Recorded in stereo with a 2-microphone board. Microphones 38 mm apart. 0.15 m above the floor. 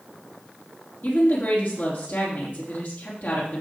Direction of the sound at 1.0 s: 55° left (ahead or behind).